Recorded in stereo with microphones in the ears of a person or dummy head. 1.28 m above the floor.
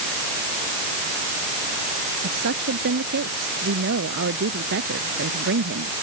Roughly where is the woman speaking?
Right.